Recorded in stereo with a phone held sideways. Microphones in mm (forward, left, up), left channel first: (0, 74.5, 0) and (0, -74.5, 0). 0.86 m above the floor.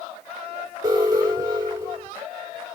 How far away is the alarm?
About 4.5 m.